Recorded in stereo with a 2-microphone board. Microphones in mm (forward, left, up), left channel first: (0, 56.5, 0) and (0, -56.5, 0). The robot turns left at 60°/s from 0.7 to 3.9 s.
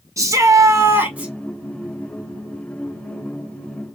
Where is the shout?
135° right, 1.0 m; by 1.3 s 170° right, 1.0 m.